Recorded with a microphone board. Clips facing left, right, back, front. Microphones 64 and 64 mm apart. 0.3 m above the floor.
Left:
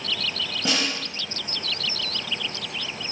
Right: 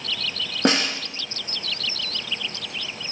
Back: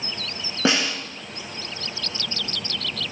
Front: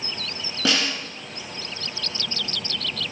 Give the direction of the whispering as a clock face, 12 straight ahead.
I don't hear whispering.